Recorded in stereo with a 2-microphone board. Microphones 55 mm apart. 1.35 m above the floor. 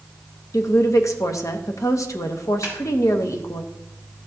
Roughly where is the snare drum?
Left.